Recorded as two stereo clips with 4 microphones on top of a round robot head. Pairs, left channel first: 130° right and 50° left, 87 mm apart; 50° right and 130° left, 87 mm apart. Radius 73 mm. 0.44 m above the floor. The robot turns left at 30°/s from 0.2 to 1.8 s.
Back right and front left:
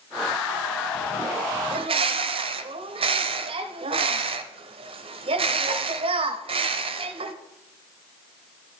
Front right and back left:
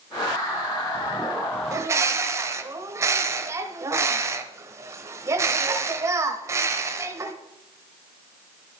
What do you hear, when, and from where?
1.7 s a bird: 70° left, 0.8 m